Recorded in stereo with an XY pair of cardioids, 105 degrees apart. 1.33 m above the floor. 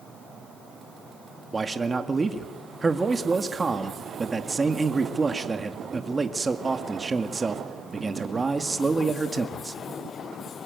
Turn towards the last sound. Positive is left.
turn(degrees=-25)